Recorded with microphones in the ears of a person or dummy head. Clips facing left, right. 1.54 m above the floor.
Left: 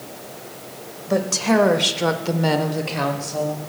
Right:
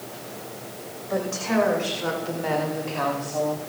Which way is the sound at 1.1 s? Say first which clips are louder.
Left 6 dB; 60° left (ahead or behind).